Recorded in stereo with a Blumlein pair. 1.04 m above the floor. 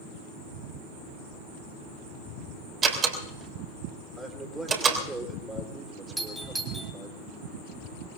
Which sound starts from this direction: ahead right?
A door slam, at 2.8 s.